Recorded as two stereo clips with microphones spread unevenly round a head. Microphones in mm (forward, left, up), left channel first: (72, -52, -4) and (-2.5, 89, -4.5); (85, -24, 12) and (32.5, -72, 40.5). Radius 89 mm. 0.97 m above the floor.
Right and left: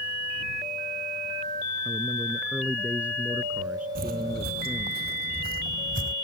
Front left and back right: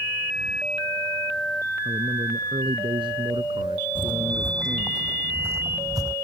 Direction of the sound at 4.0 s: 110° left.